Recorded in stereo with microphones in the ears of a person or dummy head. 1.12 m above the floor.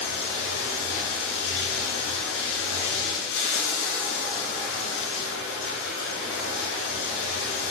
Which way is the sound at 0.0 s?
60° left (ahead or behind).